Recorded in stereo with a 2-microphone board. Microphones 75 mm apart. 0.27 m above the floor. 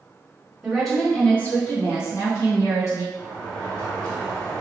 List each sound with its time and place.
0.6 s a woman speaking: 10° right (ahead or behind), 1.1 m; by 3.0 s 45° left (ahead or behind), 2 m
3.1 s a sliding door: 20° left (ahead or behind), 1.5 m